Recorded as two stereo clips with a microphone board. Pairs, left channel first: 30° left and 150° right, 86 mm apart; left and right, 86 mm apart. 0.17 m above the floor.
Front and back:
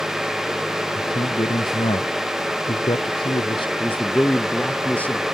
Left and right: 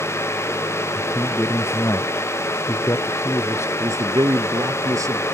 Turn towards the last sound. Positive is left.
turn(degrees=-45)